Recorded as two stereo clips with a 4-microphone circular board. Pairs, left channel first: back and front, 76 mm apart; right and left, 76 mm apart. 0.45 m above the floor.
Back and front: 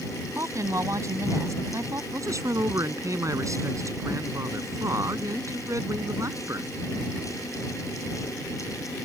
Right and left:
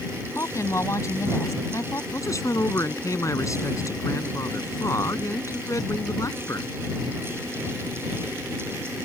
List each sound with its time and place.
0.3 s a woman speaking: 45° right
2.1 s a man speaking: 45° right